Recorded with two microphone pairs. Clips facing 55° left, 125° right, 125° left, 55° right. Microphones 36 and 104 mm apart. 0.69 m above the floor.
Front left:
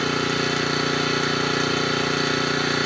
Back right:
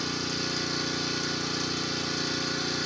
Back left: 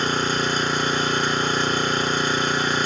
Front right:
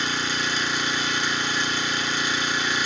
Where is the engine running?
80° left, 1.7 m.